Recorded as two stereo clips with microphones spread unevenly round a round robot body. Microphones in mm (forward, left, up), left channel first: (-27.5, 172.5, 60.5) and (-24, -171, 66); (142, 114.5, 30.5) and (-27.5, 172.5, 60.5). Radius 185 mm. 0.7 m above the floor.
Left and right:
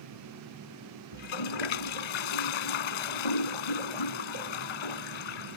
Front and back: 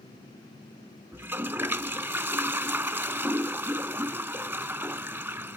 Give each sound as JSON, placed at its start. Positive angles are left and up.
{"t": 1.1, "sound": "a toilet flushing", "azimuth_deg": 85}